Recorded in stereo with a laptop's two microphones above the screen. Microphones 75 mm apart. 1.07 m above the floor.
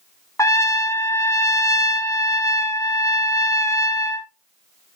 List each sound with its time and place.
0.4 s a trumpet: 45° left (ahead or behind), 0.8 m